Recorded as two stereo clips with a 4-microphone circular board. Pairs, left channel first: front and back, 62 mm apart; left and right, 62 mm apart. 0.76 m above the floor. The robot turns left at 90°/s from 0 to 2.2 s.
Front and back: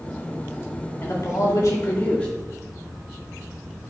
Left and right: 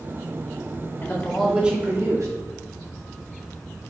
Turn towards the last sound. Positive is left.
turn(degrees=-65)